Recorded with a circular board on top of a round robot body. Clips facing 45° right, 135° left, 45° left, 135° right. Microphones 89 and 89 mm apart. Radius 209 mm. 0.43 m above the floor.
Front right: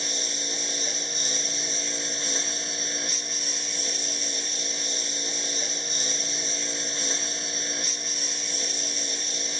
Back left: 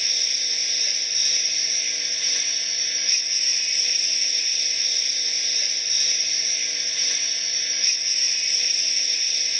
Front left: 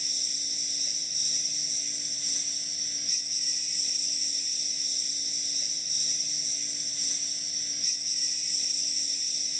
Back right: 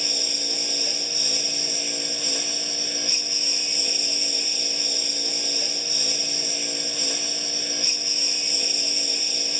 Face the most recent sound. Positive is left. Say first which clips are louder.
# front right 4 dB, back right 16 dB
turn(degrees=-105)